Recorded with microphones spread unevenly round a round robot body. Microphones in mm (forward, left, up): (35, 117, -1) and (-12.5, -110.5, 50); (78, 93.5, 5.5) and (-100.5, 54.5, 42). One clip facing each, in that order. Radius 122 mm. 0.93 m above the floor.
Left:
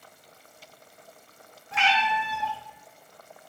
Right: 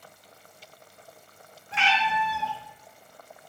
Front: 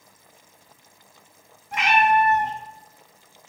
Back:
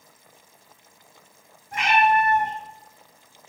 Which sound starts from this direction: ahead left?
A cat meowing, at 1.7 s.